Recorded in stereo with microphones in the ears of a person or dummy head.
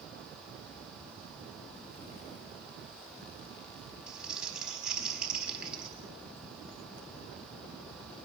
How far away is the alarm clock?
No alarm clock in this recording.